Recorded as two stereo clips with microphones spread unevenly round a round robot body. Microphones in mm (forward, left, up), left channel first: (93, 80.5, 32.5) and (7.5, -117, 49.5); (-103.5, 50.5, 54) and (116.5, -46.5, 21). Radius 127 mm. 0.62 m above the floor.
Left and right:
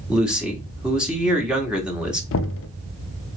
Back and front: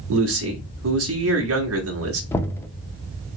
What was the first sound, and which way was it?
A man speaking, 25° right.